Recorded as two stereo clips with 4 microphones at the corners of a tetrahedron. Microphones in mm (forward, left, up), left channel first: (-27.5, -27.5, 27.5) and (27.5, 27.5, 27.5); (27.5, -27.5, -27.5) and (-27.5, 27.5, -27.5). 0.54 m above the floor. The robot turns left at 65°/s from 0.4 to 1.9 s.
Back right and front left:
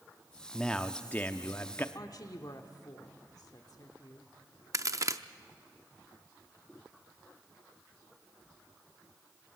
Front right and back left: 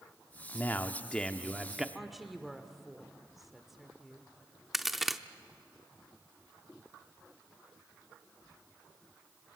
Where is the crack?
50° left, 0.6 m.